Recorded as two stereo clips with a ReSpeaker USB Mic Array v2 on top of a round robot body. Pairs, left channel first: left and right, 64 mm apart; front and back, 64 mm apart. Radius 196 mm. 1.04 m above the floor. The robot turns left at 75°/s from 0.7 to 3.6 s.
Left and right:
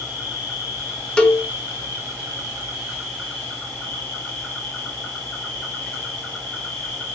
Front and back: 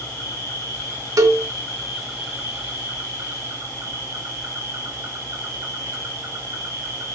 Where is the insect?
5° left, 2 m; by 7.2 s 150° left, 2 m.